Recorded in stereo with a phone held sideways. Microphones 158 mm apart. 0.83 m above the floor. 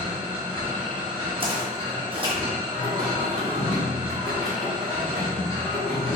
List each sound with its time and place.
0.0 s a machine running: 35° right (ahead or behind), 1.2 m
1.4 s footsteps: 35° right (ahead or behind), 1.5 m
2.7 s singing: 70° right (ahead or behind), 1.6 m